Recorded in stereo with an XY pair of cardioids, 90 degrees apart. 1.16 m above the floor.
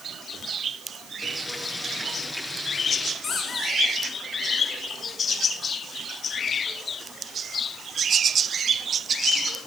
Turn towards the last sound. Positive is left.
turn(degrees=55)